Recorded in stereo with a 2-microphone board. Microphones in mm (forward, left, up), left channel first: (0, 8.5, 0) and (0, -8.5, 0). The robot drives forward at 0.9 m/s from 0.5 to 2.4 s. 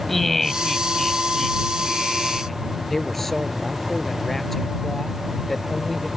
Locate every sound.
0.1 s laughter: 10° left (ahead or behind); by 2.6 s 5° left (ahead or behind)
2.9 s a man speaking: 25° left (ahead or behind)